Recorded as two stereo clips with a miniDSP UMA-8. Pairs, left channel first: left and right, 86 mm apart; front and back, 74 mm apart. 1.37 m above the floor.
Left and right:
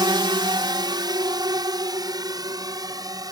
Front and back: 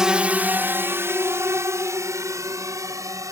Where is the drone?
100° right; by 3.3 s 135° right.